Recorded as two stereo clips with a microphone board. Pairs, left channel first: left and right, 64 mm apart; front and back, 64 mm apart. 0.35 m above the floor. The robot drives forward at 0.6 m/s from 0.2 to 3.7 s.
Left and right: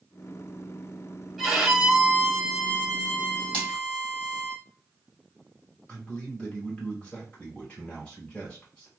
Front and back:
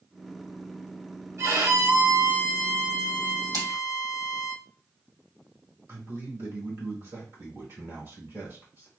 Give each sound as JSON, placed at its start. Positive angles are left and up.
{"t": 1.4, "sound": "a violin", "azimuth_deg": -175, "distance_m": 1.3}
{"t": 3.5, "sound": "a splash", "azimuth_deg": 160, "distance_m": 2.0}
{"t": 5.9, "sound": "a man speaking", "azimuth_deg": 150, "distance_m": 2.0}